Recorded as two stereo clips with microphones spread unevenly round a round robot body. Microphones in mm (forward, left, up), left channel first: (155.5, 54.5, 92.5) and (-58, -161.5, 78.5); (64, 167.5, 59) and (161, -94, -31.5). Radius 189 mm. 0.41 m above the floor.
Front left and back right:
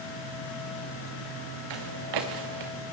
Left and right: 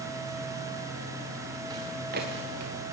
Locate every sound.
1.7 s footsteps: 155° right, 2.5 m; by 2.7 s 125° right, 3 m